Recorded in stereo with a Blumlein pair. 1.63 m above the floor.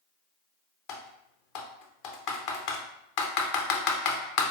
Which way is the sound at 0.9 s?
40° left.